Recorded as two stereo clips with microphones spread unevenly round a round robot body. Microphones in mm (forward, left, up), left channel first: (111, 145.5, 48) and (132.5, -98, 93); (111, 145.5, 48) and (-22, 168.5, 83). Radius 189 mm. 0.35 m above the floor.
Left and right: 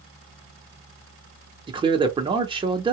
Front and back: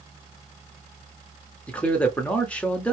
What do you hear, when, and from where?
1.7 s a man speaking: 15° right, 0.8 m